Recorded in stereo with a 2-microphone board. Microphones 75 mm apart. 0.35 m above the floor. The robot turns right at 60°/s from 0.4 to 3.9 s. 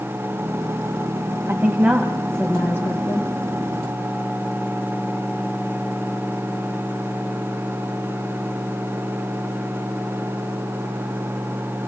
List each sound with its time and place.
1.5 s a woman speaking: 40° right, 2 m; by 3.3 s 70° left, 2 m